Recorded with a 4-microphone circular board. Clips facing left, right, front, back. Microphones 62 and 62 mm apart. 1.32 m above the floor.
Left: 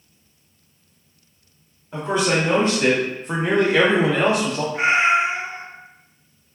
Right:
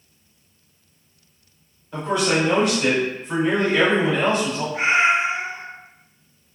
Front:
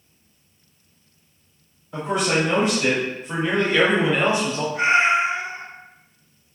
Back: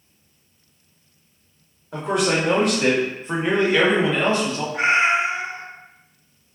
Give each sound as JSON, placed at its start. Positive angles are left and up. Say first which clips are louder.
{"t": 1.9, "sound": "a man speaking", "louder": "even, back 1 dB", "azimuth_deg": 165, "distance_m": 1.2}
{"t": 4.7, "sound": "a cat meowing", "louder": "left 1 dB, even", "azimuth_deg": -175, "distance_m": 1.0}